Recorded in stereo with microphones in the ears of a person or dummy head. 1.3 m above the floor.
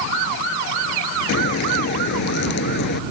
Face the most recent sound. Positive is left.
turn(degrees=60)  # may be behind; listen again after turning